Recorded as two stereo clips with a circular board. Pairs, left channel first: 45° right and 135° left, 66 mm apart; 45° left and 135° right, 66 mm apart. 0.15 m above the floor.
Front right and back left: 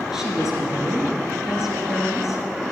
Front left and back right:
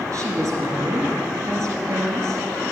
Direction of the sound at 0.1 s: 145° right.